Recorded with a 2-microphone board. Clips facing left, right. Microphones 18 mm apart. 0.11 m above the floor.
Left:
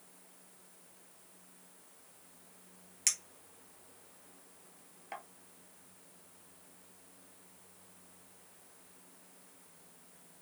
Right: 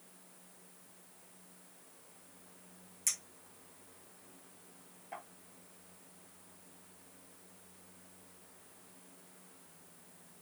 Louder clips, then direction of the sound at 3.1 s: Left 4 dB; 50° left (ahead or behind).